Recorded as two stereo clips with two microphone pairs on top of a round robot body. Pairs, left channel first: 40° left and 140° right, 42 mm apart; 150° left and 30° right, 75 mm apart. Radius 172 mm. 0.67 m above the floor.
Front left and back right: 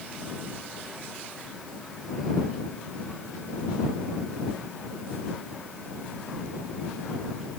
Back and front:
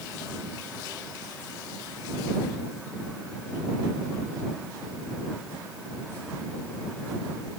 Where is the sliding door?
I don't hear a sliding door.